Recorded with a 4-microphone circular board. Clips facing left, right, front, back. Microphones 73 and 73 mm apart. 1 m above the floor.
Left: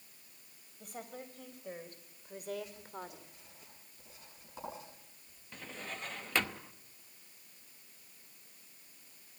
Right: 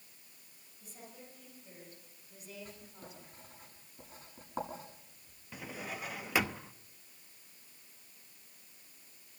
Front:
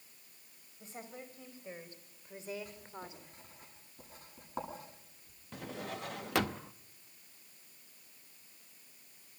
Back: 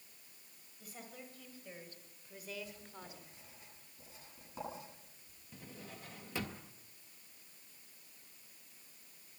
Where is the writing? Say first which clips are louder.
Left 5 dB, front 4 dB; 45° right, 10 m.